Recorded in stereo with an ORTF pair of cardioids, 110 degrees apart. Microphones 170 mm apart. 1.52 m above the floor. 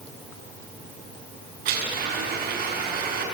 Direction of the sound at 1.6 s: 65° right.